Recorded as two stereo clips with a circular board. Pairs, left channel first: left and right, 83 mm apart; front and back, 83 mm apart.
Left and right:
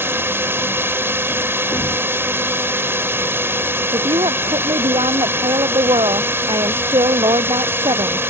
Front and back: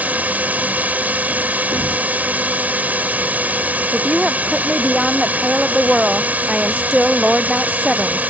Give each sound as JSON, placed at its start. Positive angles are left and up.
{"t": 0.0, "sound": "a drone", "azimuth_deg": -125}
{"t": 1.7, "sound": "a thud", "azimuth_deg": 145}
{"t": 3.9, "sound": "a woman speaking", "azimuth_deg": -95}